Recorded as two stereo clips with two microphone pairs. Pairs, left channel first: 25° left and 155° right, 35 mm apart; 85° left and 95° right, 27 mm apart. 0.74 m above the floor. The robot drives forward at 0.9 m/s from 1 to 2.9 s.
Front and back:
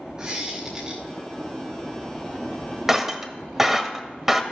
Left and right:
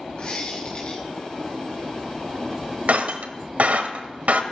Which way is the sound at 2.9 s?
75° right.